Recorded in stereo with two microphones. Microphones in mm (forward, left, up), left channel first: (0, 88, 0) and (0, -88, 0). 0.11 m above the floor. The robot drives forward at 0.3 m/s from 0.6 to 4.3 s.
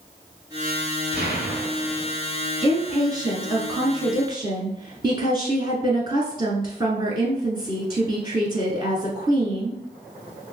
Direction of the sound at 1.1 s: 50° left (ahead or behind).